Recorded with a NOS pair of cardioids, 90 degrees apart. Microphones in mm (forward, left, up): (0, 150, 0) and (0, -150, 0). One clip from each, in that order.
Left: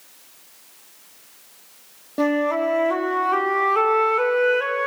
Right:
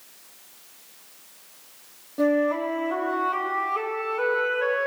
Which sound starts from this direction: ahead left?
A flute, at 2.2 s.